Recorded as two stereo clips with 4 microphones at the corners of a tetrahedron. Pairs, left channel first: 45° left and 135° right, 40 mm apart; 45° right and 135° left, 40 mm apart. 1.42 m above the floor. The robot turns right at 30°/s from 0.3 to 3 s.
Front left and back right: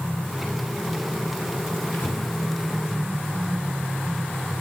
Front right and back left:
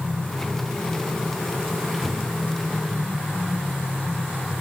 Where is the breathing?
55° left, 2.5 m; by 2.3 s 65° left, 2.5 m.